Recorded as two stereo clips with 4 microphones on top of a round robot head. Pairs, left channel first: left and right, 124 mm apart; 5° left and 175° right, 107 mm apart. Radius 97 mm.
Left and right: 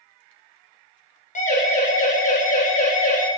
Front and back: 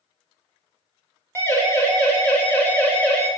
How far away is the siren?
About 8 m.